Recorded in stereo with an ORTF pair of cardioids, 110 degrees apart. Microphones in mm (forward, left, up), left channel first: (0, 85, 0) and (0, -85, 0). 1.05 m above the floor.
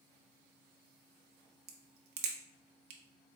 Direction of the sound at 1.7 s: 65° right.